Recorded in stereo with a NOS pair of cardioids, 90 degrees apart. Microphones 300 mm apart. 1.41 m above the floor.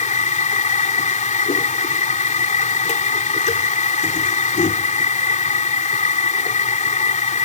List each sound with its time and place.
0.0 s a machine running: 25° left